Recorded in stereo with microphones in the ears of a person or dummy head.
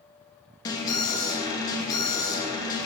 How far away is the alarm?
About 1.2 m.